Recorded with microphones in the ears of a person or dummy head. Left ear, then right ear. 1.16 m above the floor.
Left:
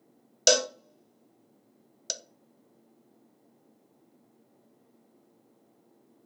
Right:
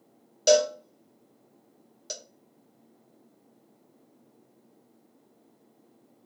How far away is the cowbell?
About 0.6 m.